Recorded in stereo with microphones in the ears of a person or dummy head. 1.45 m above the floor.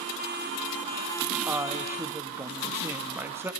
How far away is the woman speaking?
About 1.7 m.